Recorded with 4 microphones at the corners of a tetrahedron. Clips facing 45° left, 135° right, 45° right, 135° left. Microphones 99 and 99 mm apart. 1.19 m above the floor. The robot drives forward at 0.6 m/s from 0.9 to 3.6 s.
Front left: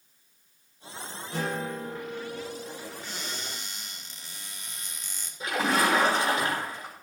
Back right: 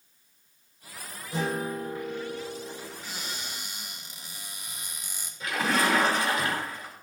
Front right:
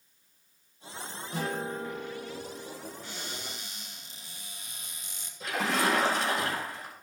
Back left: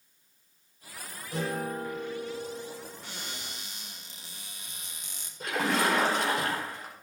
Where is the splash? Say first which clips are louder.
Front left 1 dB, back left 1 dB; 110° left, 4.5 m.